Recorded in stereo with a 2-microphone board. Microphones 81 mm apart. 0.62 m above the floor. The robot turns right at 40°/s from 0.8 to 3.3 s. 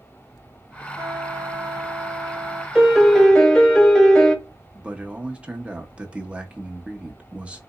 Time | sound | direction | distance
1.0 | a trumpet | 125° right | 0.5 m
2.8 | a piano | 5° right (ahead or behind) | 0.5 m
4.7 | a man speaking | 15° right (ahead or behind) | 0.6 m